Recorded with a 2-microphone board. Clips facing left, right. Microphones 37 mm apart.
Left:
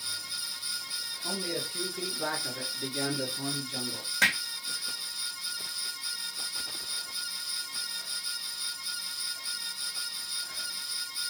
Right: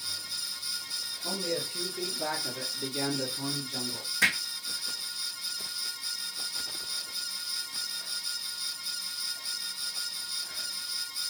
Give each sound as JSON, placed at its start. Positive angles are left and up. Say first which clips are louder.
{"t": 1.2, "sound": "a man speaking", "louder": "right 2 dB", "side_deg": 15, "distance_m": 1.5}
{"t": 4.2, "sound": "hammering", "louder": "left 1 dB", "side_deg": 70, "distance_m": 1.6}